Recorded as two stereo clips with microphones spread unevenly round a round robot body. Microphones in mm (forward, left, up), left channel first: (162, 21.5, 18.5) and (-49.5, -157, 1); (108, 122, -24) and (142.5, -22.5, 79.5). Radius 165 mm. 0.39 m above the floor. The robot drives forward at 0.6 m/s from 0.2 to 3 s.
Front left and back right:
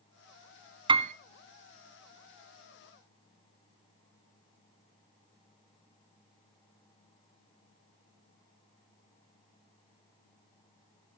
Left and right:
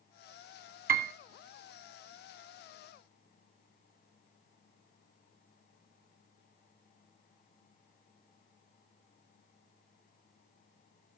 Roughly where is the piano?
Ahead right.